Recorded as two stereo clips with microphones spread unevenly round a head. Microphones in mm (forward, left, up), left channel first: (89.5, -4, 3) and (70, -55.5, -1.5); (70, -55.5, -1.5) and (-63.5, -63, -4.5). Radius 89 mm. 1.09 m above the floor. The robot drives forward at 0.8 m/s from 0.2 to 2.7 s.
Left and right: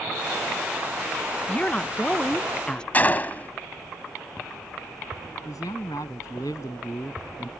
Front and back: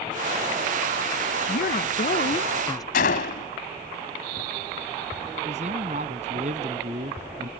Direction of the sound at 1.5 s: Straight ahead.